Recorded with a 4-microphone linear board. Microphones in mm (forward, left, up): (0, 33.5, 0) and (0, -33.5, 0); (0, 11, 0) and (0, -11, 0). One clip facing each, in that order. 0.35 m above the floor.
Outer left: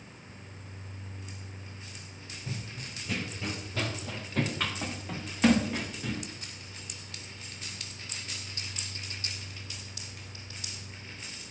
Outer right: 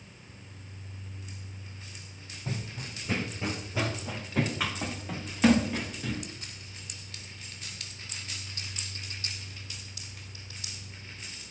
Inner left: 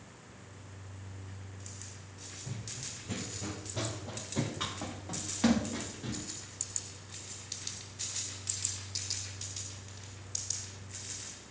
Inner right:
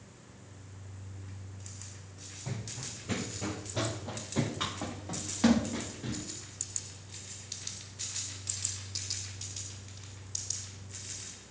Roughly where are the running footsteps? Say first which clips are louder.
Outer right 4 dB, inner right 3 dB; right.